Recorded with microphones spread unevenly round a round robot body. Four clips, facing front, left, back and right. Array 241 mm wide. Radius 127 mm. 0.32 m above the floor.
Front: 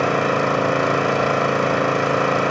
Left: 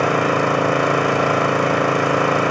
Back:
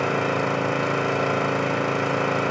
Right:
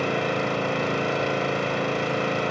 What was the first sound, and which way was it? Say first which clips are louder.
An engine running: left 8 dB, front 4 dB; 50° left.